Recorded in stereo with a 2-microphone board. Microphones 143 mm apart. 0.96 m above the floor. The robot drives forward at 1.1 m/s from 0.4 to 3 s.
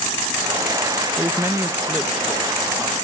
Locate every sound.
1.2 s a man speaking: 15° right (ahead or behind), 0.8 m; by 3.0 s 5° right (ahead or behind), 2 m